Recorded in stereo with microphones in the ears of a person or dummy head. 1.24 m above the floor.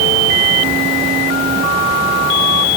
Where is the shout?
I don't hear a shout.